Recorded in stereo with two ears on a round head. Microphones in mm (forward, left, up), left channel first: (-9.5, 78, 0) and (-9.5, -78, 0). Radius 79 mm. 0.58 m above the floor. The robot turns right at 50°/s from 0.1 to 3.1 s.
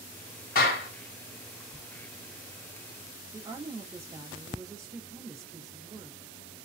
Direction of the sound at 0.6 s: 50° left (ahead or behind).